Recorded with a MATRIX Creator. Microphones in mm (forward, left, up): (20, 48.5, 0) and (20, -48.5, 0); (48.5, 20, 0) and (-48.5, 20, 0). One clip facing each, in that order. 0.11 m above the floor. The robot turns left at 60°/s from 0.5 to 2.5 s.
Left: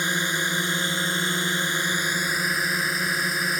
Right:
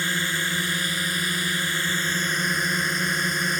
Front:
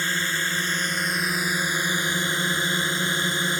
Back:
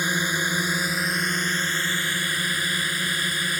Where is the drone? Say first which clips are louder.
Left 1 dB, back 2 dB; 125° left; by 3.6 s 5° left.